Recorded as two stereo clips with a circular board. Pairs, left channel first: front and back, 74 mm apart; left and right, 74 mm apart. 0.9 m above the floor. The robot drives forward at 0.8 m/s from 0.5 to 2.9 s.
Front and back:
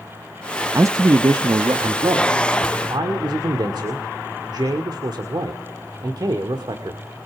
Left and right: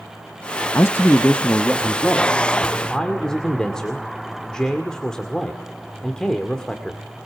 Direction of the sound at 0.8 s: 140° left.